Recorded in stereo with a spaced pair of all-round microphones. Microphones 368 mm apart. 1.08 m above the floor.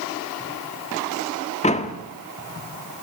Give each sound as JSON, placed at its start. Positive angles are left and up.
{"t": 1.6, "sound": "a door slam", "side_deg": 20, "distance_m": 1.5}